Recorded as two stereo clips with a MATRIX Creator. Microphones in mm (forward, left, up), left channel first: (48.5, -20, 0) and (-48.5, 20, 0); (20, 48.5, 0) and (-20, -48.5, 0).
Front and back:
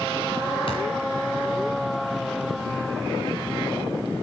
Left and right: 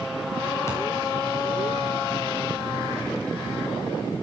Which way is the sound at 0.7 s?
10° left.